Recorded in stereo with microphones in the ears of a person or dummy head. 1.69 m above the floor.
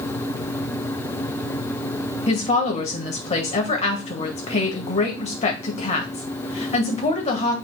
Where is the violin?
I don't hear a violin.